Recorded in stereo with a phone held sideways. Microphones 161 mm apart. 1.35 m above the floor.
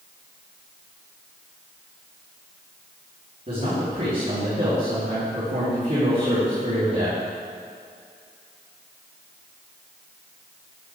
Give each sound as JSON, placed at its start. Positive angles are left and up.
{"t": 3.5, "sound": "a man speaking", "side_deg": -55, "distance_m": 4.0}